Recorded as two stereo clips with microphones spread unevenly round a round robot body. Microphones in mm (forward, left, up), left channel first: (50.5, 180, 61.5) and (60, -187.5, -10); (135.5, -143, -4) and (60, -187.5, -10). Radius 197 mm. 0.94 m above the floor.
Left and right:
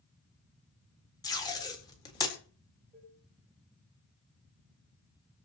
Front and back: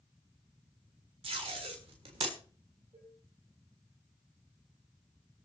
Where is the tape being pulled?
170° left, 1.6 m.